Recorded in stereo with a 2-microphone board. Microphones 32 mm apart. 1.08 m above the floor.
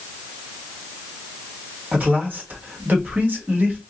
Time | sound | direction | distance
1.9 | a man speaking | 50° right (ahead or behind) | 1.3 m